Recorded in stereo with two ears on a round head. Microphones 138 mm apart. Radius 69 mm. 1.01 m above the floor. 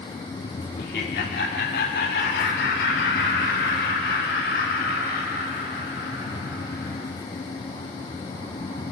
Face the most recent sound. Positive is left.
turn(degrees=70)  # may be behind; listen again after turning